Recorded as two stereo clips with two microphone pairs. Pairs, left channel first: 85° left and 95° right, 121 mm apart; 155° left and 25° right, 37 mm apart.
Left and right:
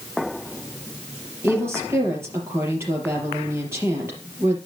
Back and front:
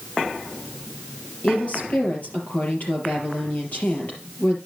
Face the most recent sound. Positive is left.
turn(degrees=-160)